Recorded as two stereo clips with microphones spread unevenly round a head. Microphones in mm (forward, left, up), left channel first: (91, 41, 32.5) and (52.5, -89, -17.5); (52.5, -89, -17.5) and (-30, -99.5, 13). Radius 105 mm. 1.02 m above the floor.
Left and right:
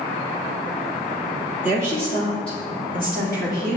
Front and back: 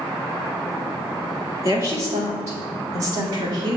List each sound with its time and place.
1.6 s a woman speaking: 130° left, 2.5 m; by 3.8 s 155° left, 2.5 m